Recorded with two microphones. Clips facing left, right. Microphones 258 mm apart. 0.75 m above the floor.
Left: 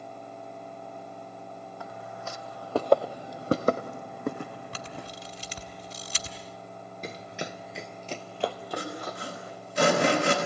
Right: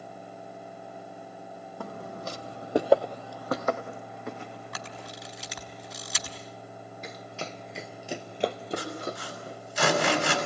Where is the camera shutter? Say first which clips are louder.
Left 1 dB; 35° left (ahead or behind), 3.5 m.